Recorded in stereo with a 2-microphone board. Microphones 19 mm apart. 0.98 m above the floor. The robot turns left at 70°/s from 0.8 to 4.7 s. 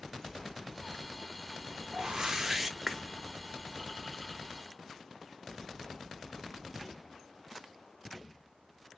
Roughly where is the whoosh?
Behind right.